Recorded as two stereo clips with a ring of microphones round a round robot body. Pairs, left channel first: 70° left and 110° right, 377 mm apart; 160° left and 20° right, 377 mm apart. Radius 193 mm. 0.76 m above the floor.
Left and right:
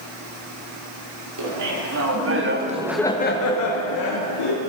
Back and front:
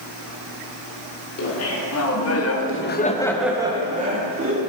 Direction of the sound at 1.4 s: 150° right.